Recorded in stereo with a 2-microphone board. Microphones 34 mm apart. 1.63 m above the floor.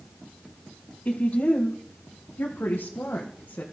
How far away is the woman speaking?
About 2.5 m.